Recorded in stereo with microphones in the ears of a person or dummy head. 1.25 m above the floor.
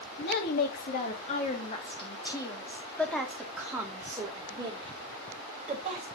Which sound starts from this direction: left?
A woman speaking, at 0.2 s.